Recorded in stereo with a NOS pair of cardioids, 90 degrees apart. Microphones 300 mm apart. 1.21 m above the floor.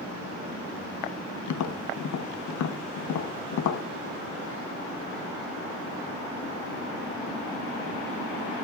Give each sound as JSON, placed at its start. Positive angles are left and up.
{"t": 1.5, "sound": "tapping", "azimuth_deg": 70, "distance_m": 1.2}